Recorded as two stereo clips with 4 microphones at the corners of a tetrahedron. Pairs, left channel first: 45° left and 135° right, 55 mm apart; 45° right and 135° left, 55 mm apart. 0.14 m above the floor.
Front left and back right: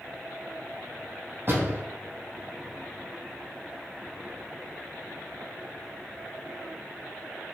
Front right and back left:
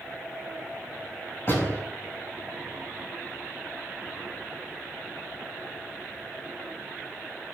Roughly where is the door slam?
Right.